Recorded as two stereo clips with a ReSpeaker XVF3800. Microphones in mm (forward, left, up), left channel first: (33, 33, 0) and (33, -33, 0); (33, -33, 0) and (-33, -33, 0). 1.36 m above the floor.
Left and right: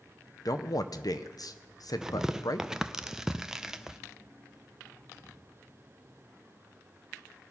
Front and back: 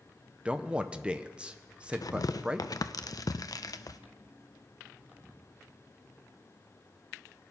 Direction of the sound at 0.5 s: 105° left.